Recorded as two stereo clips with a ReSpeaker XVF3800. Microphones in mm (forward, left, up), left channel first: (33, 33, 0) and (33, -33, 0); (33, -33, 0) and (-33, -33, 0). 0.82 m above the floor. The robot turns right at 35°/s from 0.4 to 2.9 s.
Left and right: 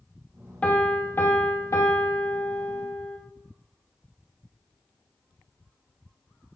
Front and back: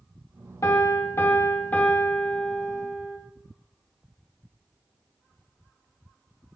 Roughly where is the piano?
Ahead.